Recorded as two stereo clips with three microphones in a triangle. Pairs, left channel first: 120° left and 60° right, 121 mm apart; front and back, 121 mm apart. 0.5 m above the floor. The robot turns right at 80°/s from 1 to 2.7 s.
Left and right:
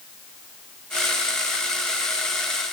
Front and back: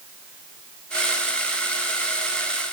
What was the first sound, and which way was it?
Only background noise.